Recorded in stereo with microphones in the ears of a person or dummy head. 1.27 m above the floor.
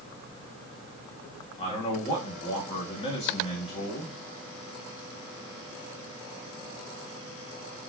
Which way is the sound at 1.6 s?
35° left (ahead or behind).